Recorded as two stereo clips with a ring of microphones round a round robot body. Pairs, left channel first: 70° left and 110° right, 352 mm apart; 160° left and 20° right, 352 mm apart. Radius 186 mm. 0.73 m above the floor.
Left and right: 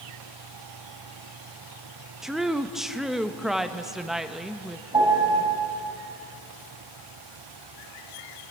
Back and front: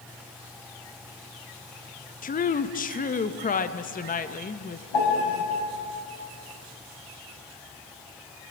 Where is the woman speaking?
160° left, 0.8 m.